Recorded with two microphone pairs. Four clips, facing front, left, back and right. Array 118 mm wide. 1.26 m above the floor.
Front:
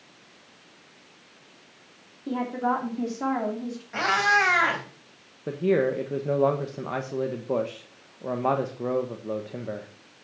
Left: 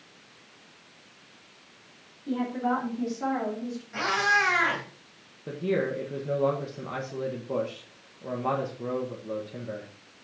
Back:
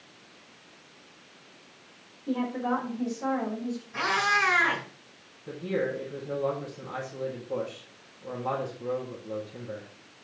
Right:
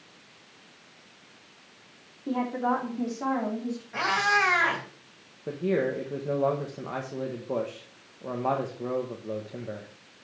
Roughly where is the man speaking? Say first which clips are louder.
Right 1 dB, front 7 dB; ahead.